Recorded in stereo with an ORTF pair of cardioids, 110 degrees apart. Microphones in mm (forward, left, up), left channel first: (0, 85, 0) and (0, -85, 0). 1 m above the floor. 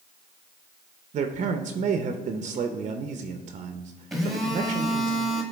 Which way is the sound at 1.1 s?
45° right.